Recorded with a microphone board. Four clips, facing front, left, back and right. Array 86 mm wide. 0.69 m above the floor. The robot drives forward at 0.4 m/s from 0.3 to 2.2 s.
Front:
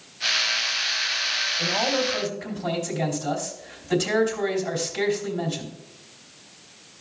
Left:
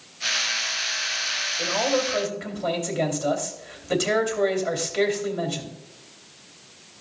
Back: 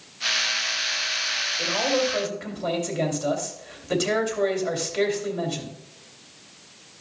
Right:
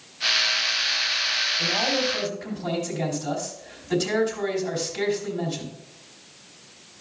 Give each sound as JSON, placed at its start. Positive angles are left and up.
{"t": 1.6, "sound": "a man speaking", "azimuth_deg": 125, "distance_m": 2.5}